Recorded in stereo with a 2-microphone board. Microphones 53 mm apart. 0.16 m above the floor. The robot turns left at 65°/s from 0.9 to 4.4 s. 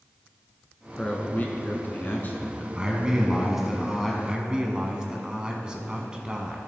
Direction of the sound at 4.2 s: 15° right (ahead or behind).